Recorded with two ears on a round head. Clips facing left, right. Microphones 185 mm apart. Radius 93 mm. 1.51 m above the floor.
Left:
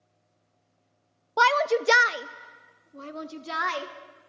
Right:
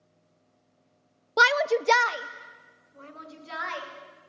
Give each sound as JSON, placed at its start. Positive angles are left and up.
{"t": 1.4, "sound": "a shout", "side_deg": -25, "distance_m": 0.5}